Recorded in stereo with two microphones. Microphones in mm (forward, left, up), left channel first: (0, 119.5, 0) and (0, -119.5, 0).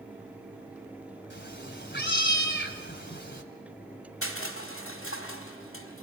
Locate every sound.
1.3 s a cat meowing: 55° left (ahead or behind), 2.0 m
4.2 s crushing: 75° left (ahead or behind), 4 m